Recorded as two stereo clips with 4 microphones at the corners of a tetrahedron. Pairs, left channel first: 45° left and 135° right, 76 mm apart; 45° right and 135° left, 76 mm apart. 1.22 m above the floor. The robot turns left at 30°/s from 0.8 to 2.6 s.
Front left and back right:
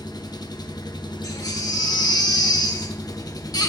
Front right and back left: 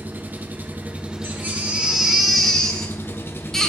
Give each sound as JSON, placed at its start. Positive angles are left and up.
{"t": 0.0, "sound": "an engine running", "azimuth_deg": 70, "distance_m": 0.9}
{"t": 1.2, "sound": "a baby crying", "azimuth_deg": 80, "distance_m": 1.5}